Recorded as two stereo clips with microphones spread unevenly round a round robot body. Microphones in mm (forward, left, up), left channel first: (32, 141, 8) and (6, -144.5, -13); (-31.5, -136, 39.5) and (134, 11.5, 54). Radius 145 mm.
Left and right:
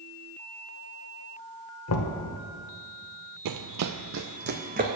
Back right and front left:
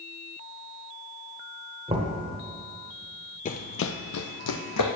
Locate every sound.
1.9 s knocking: 105° left, 1.0 m
3.5 s running footsteps: 90° right, 0.6 m; by 4.9 s 160° right, 1.2 m